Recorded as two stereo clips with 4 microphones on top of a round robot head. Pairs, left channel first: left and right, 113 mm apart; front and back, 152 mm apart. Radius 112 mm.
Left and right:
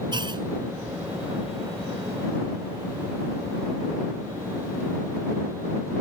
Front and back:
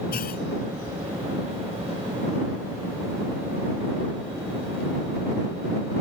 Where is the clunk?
40° right.